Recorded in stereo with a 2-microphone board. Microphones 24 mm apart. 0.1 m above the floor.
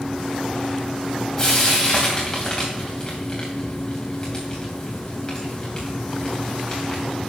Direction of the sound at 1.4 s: 15° left (ahead or behind).